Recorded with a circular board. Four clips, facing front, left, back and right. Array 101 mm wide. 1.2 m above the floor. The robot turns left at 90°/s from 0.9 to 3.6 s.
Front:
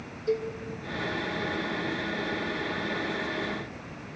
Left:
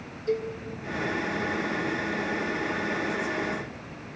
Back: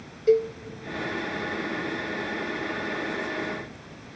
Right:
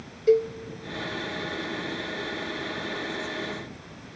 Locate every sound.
0.3 s a cowbell: 130° right, 0.5 m